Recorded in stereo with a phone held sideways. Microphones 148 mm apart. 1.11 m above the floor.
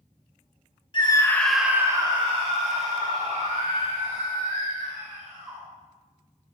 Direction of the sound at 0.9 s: 35° left (ahead or behind).